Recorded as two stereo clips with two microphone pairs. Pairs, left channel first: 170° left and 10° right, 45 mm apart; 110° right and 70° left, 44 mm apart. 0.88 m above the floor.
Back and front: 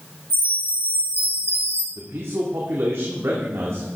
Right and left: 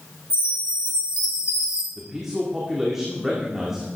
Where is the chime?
130° left, 4.5 m.